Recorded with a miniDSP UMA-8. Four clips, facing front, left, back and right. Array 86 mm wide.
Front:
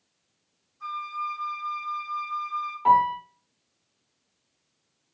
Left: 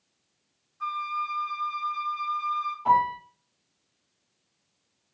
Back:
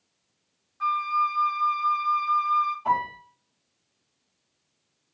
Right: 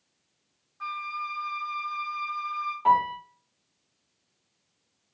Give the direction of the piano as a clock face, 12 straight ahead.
1 o'clock.